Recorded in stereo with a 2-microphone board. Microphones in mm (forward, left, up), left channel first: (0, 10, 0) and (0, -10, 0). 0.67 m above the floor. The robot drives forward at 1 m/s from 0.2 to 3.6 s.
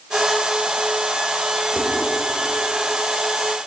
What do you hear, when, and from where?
1.8 s dishes clattering: 75° right (ahead or behind), 1.8 m